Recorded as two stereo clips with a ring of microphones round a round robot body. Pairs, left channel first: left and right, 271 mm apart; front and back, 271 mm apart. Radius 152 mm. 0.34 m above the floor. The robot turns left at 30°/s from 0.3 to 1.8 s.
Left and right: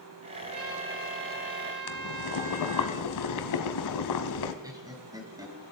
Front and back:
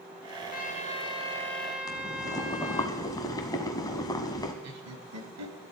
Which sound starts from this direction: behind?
Laughter, at 4.6 s.